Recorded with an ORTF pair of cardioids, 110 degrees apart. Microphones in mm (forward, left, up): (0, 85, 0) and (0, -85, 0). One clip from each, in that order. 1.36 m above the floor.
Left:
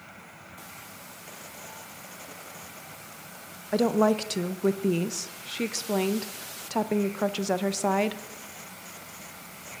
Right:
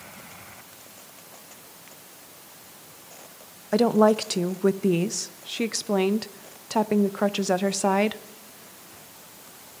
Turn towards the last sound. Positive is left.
turn(degrees=-15)